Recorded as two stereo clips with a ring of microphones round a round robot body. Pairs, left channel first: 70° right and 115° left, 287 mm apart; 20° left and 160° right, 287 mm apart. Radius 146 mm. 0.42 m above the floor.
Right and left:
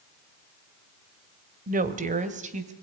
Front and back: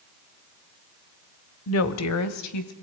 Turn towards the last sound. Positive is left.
turn(degrees=45)